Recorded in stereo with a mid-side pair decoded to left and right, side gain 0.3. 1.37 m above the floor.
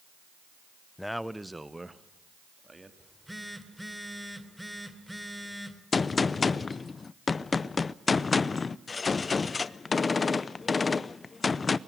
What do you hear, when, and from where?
1.0 s a man speaking: 15° left, 0.7 m; by 2.9 s 30° right, 3 m
3.0 s a phone buzzing: 5° right, 2.5 m
5.9 s a gunshot: 50° left, 0.6 m